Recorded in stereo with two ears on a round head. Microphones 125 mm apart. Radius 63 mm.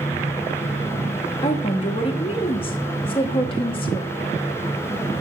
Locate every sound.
1.4 s a woman speaking: 40° left (ahead or behind), 0.7 m